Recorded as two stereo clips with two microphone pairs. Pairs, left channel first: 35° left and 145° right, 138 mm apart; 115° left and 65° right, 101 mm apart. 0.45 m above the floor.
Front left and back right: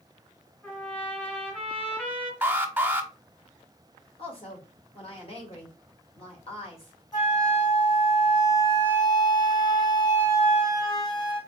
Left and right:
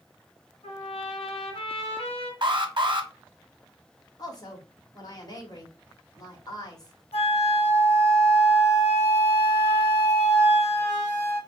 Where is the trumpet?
115° left, 1.4 m.